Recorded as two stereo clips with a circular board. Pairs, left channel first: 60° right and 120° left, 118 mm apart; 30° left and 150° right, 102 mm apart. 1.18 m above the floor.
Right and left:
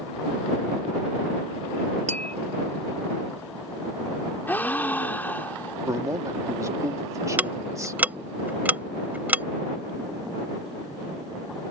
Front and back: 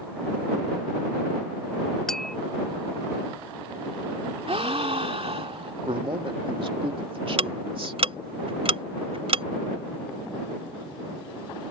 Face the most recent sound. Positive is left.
turn(degrees=-165)